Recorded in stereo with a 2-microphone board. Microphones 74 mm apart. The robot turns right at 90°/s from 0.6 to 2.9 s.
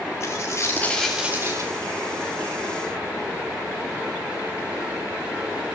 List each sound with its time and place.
0.2 s a dropped coin: 135° left, 9.5 m; by 1.7 s 125° right, 9.5 m